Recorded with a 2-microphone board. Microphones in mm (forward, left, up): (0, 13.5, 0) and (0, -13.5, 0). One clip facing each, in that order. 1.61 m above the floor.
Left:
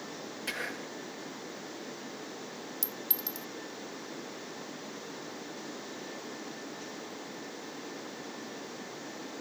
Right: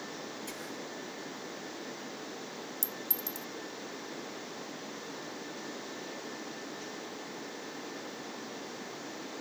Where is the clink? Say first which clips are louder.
Even; 50° left (ahead or behind).